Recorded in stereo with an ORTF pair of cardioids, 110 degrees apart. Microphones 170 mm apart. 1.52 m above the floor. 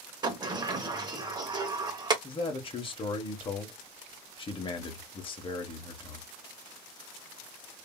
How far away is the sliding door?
About 0.8 m.